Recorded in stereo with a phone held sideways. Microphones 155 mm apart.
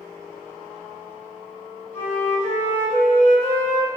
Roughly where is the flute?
Centre.